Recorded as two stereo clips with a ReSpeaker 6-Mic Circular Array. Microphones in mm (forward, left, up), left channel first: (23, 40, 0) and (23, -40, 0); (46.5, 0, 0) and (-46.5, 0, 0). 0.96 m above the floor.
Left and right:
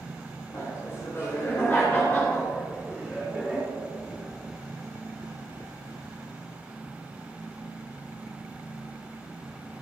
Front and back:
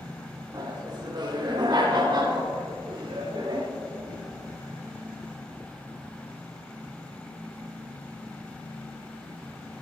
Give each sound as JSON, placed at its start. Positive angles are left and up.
{"t": 0.5, "sound": "laughter", "azimuth_deg": 140, "distance_m": 3.5}